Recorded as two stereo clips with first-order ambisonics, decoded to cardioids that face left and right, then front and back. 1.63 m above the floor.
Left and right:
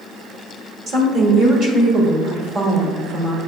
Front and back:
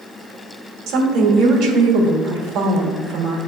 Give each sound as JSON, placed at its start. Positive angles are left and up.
{"t": 0.9, "sound": "a woman speaking", "azimuth_deg": -145, "distance_m": 1.2}